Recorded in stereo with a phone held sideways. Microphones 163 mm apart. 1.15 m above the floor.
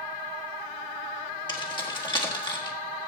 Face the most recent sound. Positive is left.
turn(degrees=30)  # may be behind; listen again after turning